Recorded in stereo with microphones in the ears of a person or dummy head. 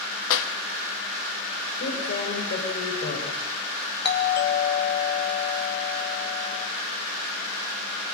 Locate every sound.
0.3 s a clap: 75° left (ahead or behind), 1.5 m
1.8 s a woman speaking: 45° left (ahead or behind), 5.5 m
4.0 s a doorbell: 50° left (ahead or behind), 1.3 m